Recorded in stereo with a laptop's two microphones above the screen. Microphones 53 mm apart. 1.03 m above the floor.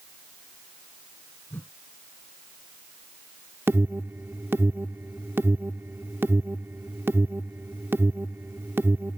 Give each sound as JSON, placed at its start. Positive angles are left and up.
{"t": 1.5, "sound": "a whoosh", "side_deg": 50}
{"t": 3.7, "sound": "an alarm", "side_deg": -45}